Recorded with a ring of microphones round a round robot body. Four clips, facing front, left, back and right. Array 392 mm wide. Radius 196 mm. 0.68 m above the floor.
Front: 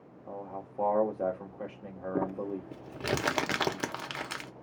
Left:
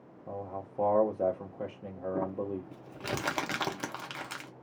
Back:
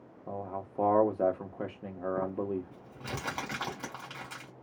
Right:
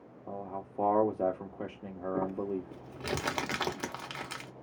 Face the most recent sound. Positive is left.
turn(degrees=0)